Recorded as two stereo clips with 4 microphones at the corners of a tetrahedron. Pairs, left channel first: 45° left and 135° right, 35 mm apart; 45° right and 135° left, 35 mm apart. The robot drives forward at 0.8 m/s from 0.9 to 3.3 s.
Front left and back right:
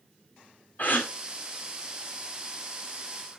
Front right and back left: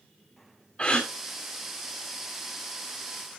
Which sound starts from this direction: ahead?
A gasp, at 0.8 s.